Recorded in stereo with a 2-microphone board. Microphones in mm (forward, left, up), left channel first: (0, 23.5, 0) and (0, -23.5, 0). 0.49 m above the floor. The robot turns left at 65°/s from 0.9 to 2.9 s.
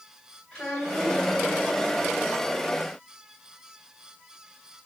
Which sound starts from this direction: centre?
A child speaking, at 0.5 s.